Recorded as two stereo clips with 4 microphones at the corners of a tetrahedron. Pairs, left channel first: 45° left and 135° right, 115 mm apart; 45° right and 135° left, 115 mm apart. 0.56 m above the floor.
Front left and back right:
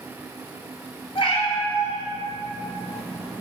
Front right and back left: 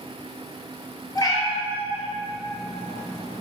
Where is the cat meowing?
10° left, 1.6 m; by 3.4 s 40° right, 2.5 m.